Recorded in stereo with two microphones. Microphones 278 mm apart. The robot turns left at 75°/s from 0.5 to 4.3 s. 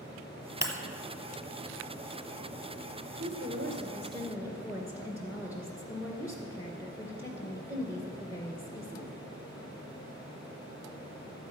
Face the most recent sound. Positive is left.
turn(degrees=-170)